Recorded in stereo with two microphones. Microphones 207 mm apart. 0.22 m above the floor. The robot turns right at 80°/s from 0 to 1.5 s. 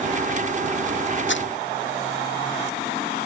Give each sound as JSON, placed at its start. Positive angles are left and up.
{"t": 1.3, "sound": "crumpling", "side_deg": 75}